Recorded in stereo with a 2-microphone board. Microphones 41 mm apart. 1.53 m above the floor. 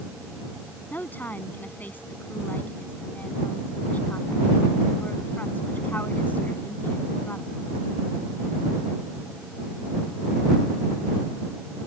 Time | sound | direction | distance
0.9 | a woman speaking | 45° left (ahead or behind) | ?